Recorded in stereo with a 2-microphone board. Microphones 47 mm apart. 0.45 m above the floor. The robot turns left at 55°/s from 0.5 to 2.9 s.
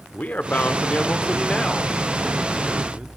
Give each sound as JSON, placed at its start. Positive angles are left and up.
{"t": 0.1, "sound": "a man speaking", "azimuth_deg": 95, "distance_m": 0.8}